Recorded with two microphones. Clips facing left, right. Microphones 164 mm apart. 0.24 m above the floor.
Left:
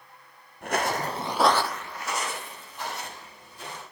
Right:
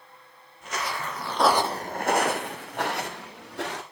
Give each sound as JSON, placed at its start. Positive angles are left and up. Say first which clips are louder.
{"t": 0.6, "sound": "footsteps", "louder": "left 5 dB", "side_deg": 60, "distance_m": 1.0}